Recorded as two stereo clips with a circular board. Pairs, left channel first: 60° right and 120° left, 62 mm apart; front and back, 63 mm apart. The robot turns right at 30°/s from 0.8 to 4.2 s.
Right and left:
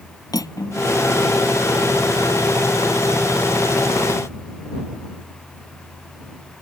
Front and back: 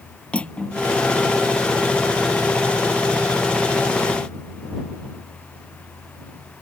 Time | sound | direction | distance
0.3 | cutlery clinking | 70° right | ?